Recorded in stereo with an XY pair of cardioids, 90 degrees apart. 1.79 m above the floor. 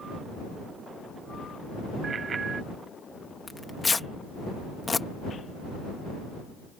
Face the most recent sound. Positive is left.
turn(degrees=30)